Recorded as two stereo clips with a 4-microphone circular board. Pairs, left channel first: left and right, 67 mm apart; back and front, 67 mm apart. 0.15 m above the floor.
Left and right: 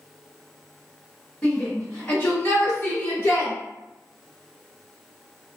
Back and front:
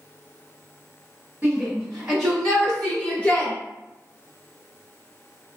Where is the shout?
55° left, 1.7 m; by 3.5 s 125° left, 2 m.